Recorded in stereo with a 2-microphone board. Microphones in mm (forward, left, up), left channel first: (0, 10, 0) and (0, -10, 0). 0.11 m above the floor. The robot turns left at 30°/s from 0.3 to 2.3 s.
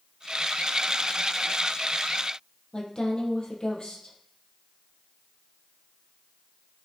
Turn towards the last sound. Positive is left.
turn(degrees=40)  # may be behind; listen again after turning